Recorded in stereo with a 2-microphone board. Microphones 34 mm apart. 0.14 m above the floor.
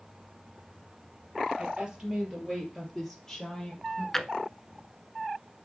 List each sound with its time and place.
1.6 s a woman speaking: 30° right (ahead or behind), 3 m; by 4.0 s 15° left (ahead or behind), 4 m
4.1 s a drawer: 10° left (ahead or behind), 0.5 m